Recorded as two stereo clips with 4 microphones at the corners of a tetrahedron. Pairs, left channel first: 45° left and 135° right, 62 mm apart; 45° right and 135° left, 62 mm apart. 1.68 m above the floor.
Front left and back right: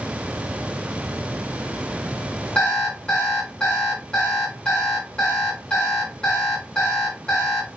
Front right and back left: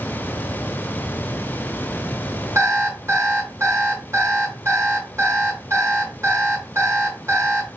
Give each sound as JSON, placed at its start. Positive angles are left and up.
{"t": 2.5, "sound": "an alarm clock", "azimuth_deg": 115, "distance_m": 2.5}